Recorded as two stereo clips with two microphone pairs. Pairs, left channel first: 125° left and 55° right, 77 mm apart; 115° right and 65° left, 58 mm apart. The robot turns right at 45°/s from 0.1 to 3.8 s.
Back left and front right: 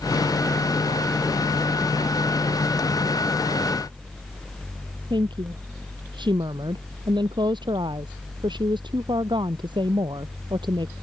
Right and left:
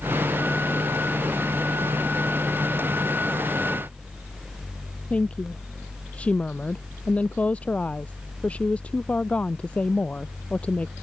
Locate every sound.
5.1 s a woman speaking: 45° right